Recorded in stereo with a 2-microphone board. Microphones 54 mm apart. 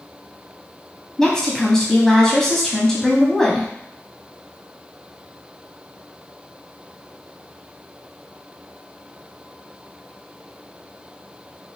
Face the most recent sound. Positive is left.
turn(degrees=10)  # may be behind; listen again after turning